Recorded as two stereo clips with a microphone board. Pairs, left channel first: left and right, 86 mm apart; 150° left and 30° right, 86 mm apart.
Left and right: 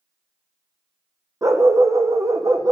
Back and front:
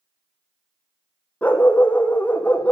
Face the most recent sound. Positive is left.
turn(degrees=-140)